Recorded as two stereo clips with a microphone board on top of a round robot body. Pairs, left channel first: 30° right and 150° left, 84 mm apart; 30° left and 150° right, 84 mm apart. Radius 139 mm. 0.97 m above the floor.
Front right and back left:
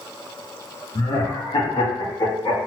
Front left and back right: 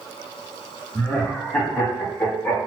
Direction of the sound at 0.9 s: 45° right.